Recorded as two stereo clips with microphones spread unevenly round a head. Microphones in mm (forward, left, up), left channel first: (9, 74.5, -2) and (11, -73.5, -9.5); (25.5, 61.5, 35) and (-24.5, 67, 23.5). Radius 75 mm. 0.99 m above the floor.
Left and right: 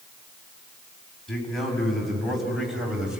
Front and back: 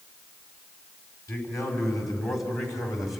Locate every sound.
1.3 s a man speaking: 5° left, 5.5 m; by 3.2 s 5° right, 4 m